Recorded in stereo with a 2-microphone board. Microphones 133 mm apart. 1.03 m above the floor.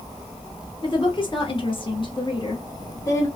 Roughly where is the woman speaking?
Left.